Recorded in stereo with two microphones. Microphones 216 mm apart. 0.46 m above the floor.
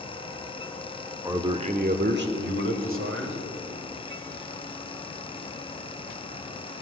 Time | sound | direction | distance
1.2 | a man speaking | 10° right (ahead or behind) | 0.7 m